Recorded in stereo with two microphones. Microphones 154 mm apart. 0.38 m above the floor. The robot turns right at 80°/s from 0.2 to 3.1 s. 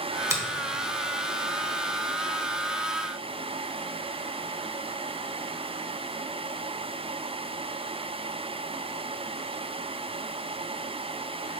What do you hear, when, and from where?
0.3 s a finger snap: 20° right (ahead or behind), 0.8 m